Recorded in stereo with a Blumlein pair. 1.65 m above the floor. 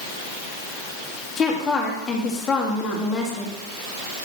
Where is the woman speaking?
20° left, 2.5 m.